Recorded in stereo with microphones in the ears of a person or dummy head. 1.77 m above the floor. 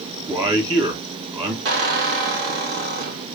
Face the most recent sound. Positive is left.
turn(degrees=-55)  # may be behind; listen again after turning